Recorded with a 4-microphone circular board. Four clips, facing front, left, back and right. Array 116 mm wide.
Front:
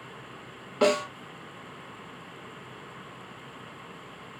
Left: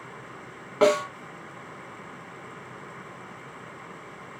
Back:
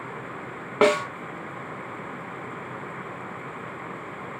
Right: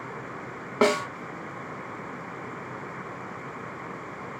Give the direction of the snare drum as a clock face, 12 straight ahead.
5 o'clock.